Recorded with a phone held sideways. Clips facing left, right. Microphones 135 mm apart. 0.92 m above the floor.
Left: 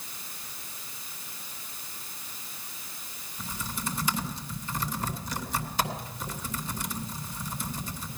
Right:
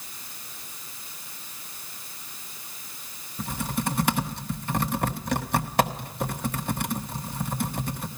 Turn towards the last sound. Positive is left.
turn(degrees=-65)  # may be behind; listen again after turning